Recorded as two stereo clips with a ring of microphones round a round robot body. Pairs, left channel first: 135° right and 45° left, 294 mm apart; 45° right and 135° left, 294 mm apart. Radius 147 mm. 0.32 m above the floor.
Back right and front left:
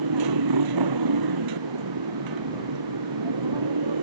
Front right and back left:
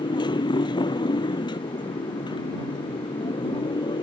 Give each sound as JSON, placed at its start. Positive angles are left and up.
{"t": 0.0, "sound": "a motorcycle", "azimuth_deg": 30}